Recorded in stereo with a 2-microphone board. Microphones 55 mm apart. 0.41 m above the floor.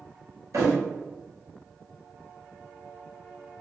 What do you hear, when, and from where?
0.5 s a thud: 75° right (ahead or behind), 1.3 m